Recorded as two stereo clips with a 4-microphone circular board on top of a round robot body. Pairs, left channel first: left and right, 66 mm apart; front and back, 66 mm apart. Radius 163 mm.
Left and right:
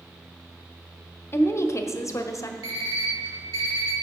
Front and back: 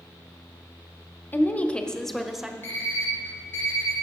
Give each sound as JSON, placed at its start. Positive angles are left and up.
{"t": 1.3, "sound": "a woman speaking", "azimuth_deg": 50, "distance_m": 1.1}
{"t": 2.6, "sound": "an alarm clock", "azimuth_deg": -60, "distance_m": 2.5}